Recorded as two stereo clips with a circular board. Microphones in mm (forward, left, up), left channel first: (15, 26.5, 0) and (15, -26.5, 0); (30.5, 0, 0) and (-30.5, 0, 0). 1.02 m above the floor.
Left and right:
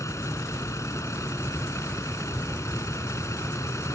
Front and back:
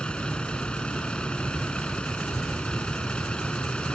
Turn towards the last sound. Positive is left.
turn(degrees=75)